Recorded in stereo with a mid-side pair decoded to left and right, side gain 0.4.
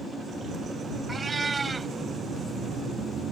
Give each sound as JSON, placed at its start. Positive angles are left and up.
{"t": 1.1, "sound": "a cat meowing", "azimuth_deg": -30}